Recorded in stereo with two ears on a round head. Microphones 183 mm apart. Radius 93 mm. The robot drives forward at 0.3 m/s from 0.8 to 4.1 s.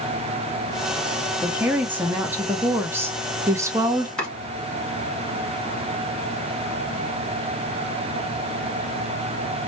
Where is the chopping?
5° left (ahead or behind), 2.5 m.